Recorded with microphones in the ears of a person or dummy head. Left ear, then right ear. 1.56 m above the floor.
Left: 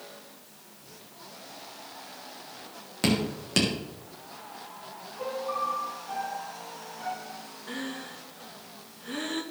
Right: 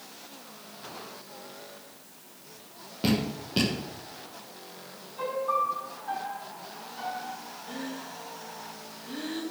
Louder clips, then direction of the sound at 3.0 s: Left 1 dB; 65° left (ahead or behind).